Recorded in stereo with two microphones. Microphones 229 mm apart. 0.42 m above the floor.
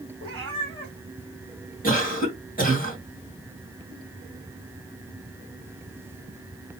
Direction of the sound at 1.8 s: 40° left (ahead or behind).